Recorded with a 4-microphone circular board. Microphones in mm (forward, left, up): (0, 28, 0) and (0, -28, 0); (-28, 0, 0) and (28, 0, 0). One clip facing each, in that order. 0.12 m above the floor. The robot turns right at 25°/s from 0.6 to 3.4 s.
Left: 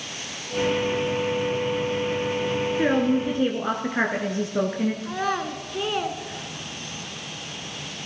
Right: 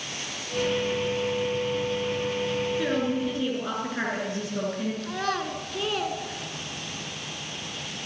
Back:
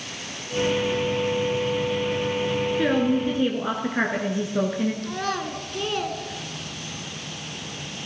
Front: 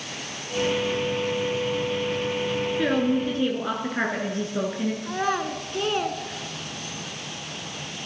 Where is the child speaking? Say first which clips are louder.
Left 2 dB, front 2 dB; 35° left, 0.9 m.